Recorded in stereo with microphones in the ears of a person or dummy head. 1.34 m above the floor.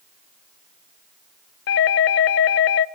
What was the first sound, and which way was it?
A doorbell, 55° left (ahead or behind).